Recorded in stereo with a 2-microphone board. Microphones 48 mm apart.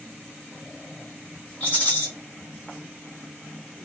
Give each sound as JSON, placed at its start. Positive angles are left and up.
{"t": 1.6, "sound": "a rattle", "side_deg": 30, "distance_m": 1.6}